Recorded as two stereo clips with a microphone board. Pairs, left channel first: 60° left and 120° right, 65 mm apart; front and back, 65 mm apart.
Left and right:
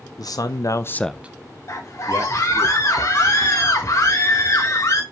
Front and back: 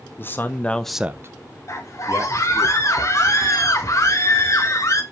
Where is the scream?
25° left, 1.2 m.